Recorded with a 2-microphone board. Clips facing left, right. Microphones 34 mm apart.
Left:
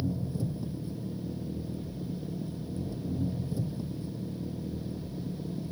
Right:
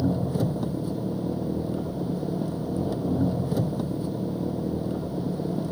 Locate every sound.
0.0 s an engine running: 75° right (ahead or behind)